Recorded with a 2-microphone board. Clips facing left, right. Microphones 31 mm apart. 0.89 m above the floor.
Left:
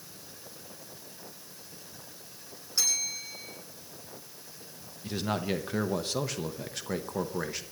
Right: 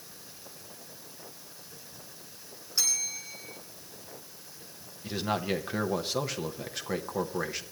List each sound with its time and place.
2.8 s a bell: centre (ahead or behind), 7.5 m
5.0 s a man speaking: 5° right (ahead or behind), 0.9 m